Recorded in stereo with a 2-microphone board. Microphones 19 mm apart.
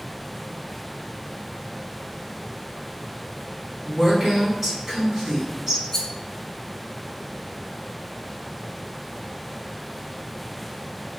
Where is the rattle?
20° left (ahead or behind), 0.7 m.